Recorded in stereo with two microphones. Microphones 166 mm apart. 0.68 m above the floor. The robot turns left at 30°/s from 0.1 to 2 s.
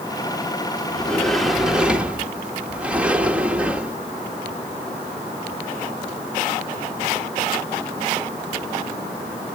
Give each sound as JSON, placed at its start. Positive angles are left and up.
{"t": 0.9, "sound": "a sliding door", "side_deg": 5, "distance_m": 1.1}